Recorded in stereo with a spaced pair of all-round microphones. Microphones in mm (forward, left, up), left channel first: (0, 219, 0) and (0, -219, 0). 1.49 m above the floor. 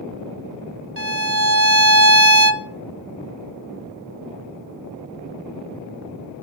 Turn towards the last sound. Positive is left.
turn(degrees=-30)  # may be behind; listen again after turning